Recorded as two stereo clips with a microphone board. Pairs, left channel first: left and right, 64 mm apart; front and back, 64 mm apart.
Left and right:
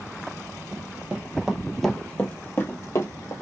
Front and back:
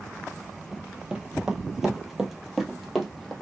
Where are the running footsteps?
115° right, 1.1 m; by 3.3 s 85° left, 1.3 m.